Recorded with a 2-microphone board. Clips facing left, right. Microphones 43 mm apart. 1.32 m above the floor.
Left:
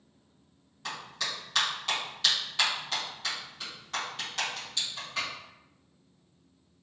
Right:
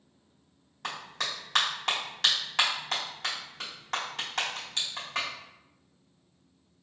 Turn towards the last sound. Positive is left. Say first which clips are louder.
# right 1 dB
turn(degrees=-75)  # may be behind; listen again after turning